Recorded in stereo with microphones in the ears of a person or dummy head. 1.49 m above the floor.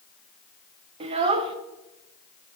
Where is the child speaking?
35° right (ahead or behind), 0.8 m.